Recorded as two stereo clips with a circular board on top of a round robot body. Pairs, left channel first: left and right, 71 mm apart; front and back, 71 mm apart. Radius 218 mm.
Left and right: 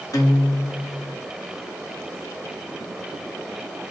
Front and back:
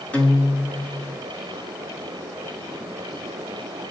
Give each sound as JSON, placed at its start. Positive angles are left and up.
{"t": 0.1, "sound": "a guitar", "azimuth_deg": 70, "distance_m": 1.6}